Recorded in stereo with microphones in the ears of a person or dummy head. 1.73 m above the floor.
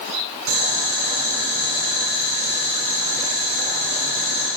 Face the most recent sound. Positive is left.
turn(degrees=-75)  # may be behind; listen again after turning